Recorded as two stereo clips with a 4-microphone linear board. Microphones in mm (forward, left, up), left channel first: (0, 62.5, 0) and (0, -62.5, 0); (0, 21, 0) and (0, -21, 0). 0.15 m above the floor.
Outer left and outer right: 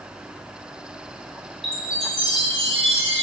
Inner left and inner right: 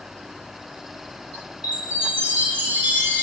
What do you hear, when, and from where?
1.6 s a chime: 50° right (ahead or behind), 2.5 m